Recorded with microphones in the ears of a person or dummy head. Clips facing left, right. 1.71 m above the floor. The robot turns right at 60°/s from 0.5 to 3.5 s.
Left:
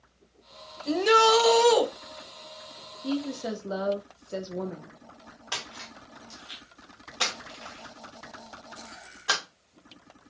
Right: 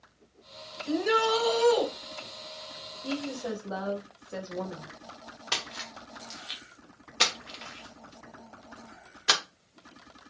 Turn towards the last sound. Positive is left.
turn(degrees=-30)  # may be behind; listen again after turning